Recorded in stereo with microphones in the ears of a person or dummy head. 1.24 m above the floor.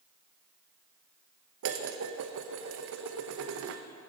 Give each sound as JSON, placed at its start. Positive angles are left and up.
{"t": 1.6, "sound": "dishes clattering", "side_deg": -65, "distance_m": 0.8}